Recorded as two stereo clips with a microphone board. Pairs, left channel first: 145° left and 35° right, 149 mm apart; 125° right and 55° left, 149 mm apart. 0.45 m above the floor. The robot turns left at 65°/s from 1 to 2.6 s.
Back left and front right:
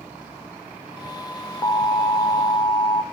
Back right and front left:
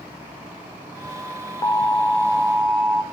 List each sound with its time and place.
1.6 s an alarm: 175° right, 1.0 m; by 3.0 s 120° left, 1.0 m